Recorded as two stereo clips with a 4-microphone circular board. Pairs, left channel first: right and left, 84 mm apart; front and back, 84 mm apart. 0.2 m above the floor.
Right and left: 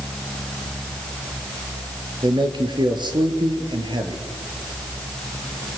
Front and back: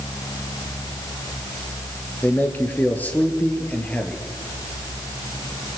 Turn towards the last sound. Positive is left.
turn(degrees=75)